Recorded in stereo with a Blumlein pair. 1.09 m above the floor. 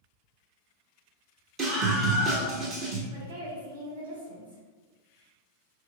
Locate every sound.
1.6 s a scream: 30° right, 0.7 m
3.1 s a woman speaking: 70° right, 1.6 m